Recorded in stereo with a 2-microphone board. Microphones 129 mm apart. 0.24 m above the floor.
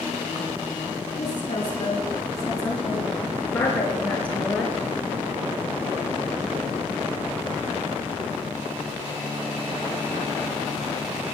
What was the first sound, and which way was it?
A woman speaking, 40° left (ahead or behind).